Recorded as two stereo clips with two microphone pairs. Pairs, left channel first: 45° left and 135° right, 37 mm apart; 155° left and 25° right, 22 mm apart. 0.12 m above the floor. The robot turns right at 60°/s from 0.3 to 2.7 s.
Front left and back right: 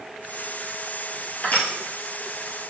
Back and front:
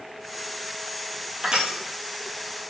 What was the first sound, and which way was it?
Crushing, 10° left.